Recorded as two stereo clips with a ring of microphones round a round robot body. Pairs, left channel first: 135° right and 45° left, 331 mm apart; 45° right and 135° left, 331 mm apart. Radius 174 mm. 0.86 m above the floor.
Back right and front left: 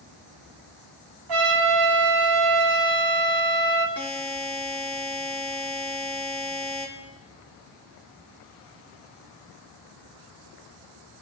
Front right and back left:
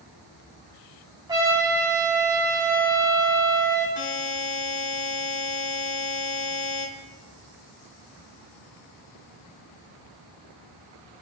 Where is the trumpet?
55° left, 8 m.